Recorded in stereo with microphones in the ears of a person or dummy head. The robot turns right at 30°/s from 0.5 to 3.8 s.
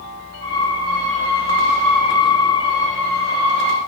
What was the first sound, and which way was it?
Only background noise.